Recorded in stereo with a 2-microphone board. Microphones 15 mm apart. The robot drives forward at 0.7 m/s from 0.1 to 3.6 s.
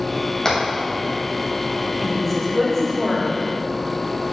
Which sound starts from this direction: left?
Hammering, at 0.5 s.